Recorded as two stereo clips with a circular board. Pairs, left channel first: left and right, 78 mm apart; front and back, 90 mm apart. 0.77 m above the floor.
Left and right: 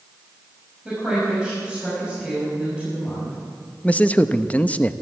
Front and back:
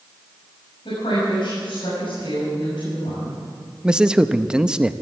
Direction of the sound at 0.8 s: 15° right.